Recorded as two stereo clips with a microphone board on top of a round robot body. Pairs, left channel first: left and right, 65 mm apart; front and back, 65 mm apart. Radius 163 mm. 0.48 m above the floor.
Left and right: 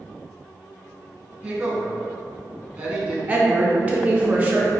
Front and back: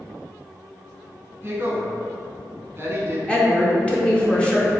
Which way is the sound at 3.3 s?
55° right.